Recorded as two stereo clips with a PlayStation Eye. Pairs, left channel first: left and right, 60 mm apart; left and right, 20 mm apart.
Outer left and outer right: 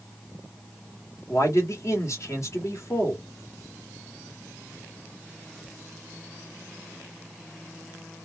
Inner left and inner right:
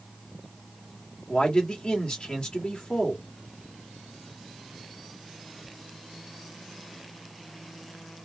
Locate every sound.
1.3 s a man speaking: 50° left (ahead or behind), 1.6 m